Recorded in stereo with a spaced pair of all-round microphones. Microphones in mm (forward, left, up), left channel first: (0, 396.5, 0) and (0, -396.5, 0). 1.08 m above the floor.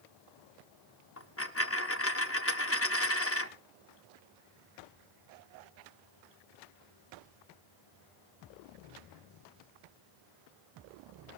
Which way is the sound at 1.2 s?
15° left (ahead or behind).